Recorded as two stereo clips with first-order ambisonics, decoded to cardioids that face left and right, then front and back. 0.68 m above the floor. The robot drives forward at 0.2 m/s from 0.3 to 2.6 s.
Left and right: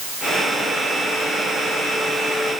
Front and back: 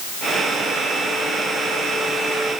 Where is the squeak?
No squeak in this recording.